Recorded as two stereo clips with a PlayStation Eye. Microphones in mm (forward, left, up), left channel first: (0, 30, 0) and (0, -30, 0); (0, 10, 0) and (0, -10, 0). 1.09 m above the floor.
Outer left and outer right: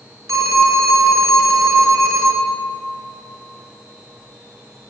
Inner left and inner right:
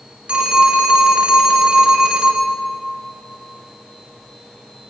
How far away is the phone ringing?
About 1.5 m.